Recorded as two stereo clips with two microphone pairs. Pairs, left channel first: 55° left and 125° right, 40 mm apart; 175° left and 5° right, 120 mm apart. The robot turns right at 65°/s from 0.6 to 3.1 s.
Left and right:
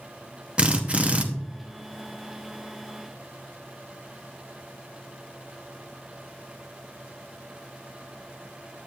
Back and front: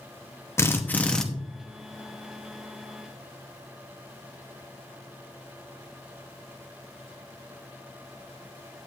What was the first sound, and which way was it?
A drill, 155° right.